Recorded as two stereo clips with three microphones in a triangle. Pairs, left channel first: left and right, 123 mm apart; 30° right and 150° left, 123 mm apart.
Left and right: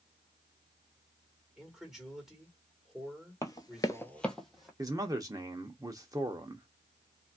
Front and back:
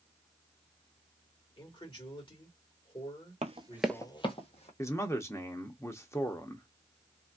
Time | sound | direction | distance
1.6 | a man speaking | 5° right | 1.8 m
3.4 | running footsteps | 150° left | 0.8 m
4.8 | a man speaking | 75° right | 0.7 m